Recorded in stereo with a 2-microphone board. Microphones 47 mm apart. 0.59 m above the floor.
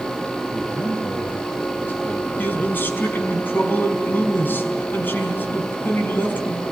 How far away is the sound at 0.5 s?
About 2.5 m.